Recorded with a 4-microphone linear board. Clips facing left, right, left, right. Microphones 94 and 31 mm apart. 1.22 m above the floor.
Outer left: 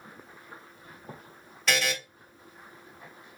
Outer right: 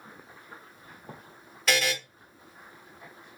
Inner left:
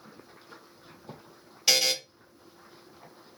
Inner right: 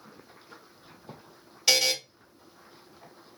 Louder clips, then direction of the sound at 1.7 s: Outer right 1 dB, inner right 1 dB; centre (ahead or behind).